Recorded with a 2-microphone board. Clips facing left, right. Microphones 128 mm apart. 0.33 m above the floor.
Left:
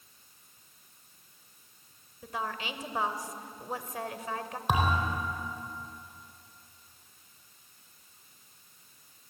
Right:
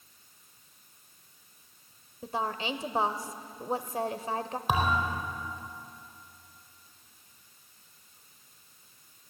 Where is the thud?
Centre (ahead or behind), 4 m.